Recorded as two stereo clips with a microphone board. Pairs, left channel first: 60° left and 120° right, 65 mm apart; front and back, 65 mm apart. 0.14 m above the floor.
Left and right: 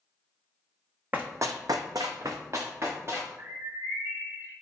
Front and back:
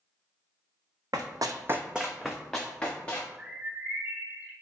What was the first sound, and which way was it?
Running footsteps, 175° left.